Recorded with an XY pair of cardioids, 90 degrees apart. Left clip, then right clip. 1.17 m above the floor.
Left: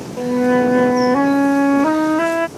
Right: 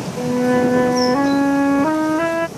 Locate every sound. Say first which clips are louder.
0.2 s a flute: left 2 dB; 15° left